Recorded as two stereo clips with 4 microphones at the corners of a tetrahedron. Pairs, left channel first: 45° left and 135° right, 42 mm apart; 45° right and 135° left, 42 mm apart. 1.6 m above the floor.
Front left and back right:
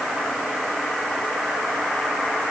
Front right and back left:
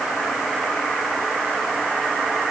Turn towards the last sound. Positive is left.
No sound to turn to.